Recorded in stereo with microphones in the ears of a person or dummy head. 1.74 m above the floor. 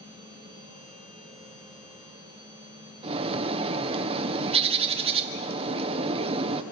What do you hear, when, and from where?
0.0 s a machine running: 35° right (ahead or behind), 7.5 m
3.0 s a bird: 25° right (ahead or behind), 1.3 m